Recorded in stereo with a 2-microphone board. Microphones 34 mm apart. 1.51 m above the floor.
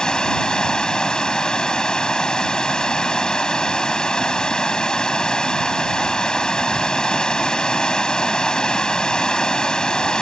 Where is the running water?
25° left (ahead or behind).